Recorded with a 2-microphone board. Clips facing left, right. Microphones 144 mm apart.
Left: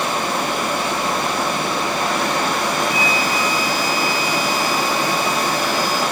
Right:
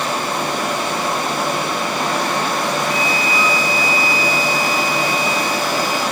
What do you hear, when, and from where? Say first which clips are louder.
2.9 s a flute: even; 30° right (ahead or behind), 2.5 m